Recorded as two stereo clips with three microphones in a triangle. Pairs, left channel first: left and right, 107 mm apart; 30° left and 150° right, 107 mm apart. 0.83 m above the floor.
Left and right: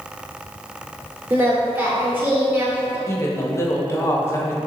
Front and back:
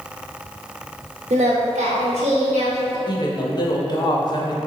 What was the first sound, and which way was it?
Singing, 165° right.